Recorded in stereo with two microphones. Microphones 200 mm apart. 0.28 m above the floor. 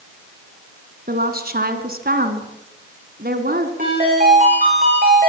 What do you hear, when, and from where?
1.1 s a woman speaking: 50° right (ahead or behind), 2.5 m
3.8 s a ringtone: 45° right (ahead or behind), 10 m